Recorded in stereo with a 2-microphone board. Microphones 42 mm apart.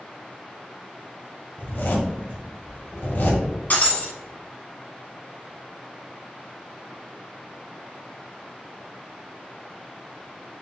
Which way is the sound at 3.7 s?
45° left (ahead or behind).